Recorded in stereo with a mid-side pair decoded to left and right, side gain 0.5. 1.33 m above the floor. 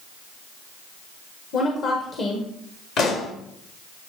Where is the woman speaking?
60° left, 1.4 m.